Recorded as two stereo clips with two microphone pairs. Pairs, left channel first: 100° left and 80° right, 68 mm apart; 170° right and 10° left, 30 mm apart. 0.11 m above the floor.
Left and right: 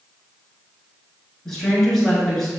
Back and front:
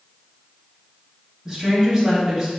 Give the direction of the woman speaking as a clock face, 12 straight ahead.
11 o'clock.